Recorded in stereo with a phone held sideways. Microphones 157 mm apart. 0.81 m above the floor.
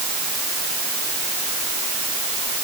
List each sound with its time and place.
Only background noise.